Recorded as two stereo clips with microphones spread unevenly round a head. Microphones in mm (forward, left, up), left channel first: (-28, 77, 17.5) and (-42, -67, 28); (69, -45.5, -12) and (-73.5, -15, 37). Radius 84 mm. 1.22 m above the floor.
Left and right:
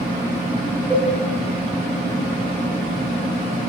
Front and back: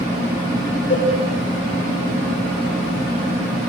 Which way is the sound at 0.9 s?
5° left.